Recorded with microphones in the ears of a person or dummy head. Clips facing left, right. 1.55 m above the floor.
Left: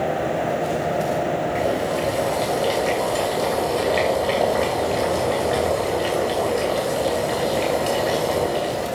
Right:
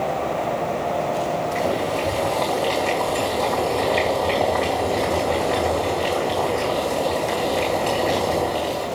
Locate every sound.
1.6 s boiling: 10° left (ahead or behind), 2 m